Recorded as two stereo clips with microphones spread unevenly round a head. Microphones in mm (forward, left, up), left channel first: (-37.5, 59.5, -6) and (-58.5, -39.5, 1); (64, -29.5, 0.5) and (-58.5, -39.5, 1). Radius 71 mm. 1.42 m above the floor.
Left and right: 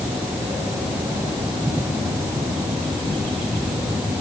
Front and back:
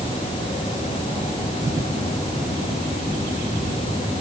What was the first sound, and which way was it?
Only background noise.